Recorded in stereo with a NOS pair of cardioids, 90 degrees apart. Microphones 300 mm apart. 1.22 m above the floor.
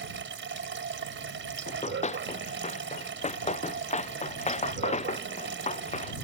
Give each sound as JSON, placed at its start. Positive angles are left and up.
{"t": 0.0, "sound": "running water", "azimuth_deg": -40}
{"t": 1.7, "sound": "running footsteps", "azimuth_deg": 20}